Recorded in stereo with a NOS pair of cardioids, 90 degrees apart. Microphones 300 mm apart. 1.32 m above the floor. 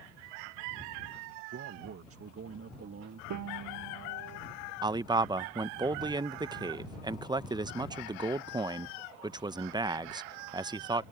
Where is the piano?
65° right.